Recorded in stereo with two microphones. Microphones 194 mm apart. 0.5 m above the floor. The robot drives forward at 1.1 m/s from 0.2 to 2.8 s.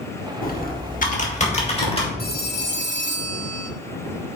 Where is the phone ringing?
50° left (ahead or behind), 1.4 m; by 3.7 s 70° left (ahead or behind), 1.2 m.